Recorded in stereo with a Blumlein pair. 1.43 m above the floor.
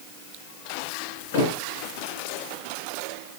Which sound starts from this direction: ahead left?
A thud, at 1.3 s.